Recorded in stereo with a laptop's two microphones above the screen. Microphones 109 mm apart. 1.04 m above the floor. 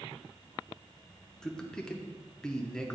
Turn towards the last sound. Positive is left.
turn(degrees=5)  # may be behind; listen again after turning